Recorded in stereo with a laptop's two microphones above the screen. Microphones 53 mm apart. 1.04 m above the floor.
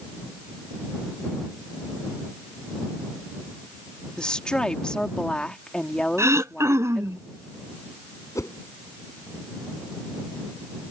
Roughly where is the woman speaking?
Centre.